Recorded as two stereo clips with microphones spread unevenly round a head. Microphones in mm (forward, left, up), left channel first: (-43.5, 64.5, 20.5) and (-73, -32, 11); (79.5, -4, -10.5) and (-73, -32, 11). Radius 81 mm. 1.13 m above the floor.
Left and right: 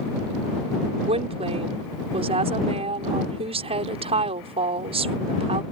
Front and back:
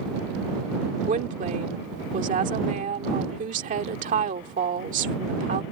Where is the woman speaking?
130° right.